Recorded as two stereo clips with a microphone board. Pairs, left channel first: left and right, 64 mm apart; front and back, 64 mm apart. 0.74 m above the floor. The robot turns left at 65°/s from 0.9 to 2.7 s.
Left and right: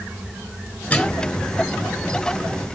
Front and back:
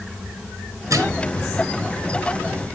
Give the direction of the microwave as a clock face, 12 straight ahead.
7 o'clock.